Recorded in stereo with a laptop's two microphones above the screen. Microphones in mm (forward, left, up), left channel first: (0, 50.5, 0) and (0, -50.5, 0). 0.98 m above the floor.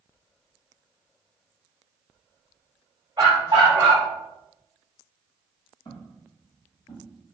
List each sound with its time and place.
3.2 s a dog barking: 40° right (ahead or behind), 1.1 m
5.8 s footsteps: 50° left (ahead or behind), 1.9 m; by 7.1 s 60° left (ahead or behind), 2 m